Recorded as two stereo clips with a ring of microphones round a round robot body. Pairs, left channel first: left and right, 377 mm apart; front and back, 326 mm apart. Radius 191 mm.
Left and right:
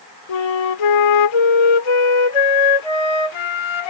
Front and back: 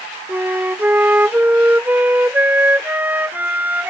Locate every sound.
0.3 s a flute: 95° left